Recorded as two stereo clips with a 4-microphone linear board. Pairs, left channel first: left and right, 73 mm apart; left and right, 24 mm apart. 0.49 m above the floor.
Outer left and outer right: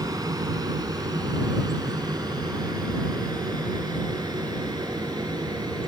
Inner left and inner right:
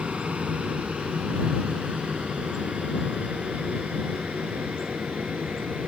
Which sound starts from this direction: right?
An aircraft, at 0.0 s.